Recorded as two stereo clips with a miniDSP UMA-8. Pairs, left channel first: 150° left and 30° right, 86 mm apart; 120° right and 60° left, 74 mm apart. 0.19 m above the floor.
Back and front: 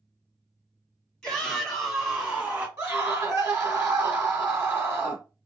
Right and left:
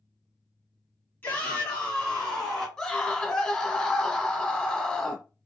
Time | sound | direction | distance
1.2 | a shout | 135° right | 1.7 m
2.8 | a scream | 55° right | 1.1 m